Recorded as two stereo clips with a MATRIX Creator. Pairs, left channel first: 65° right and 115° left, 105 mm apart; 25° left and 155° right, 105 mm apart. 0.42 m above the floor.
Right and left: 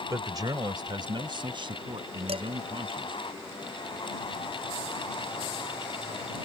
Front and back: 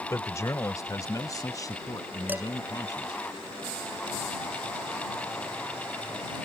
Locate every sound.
0.1 s a man speaking: 75° left
2.3 s dishes clattering: 130° left